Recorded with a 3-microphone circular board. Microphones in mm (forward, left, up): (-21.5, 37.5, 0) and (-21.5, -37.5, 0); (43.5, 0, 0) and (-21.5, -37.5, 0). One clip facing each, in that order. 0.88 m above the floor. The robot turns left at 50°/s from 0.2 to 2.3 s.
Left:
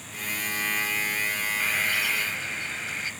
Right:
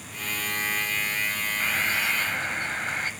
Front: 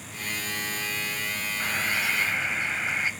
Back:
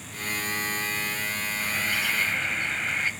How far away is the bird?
About 2 m.